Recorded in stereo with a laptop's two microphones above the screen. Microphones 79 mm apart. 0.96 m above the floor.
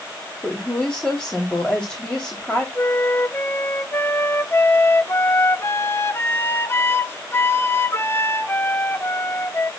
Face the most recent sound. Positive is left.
turn(degrees=30)  # may be behind; listen again after turning